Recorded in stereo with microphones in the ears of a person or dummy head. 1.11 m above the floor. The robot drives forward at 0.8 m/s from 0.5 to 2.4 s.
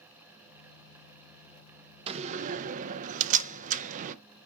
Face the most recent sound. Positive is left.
turn(degrees=-40)  # may be behind; listen again after turning